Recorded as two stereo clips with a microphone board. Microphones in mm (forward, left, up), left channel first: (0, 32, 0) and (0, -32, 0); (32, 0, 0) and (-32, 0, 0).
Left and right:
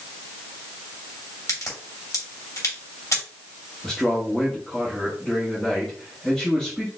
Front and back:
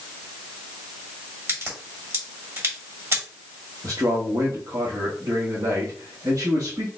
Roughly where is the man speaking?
Behind.